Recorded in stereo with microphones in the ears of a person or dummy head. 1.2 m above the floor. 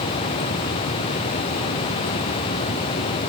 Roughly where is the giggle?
I don't hear a giggle.